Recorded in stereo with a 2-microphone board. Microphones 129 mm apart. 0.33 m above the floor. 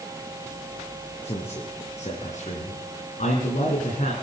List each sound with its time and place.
1.2 s a man speaking: 55° left (ahead or behind), 3.5 m; by 4.1 s 70° left (ahead or behind), 3.5 m